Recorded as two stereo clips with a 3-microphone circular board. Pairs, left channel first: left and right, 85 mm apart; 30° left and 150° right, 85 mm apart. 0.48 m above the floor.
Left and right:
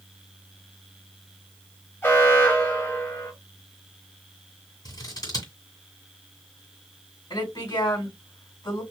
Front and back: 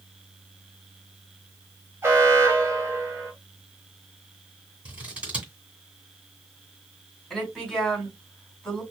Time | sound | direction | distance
2.0 | an alarm | 150° left | 2 m
4.8 | scissors | 135° left | 2 m
7.3 | a woman speaking | 115° left | 3 m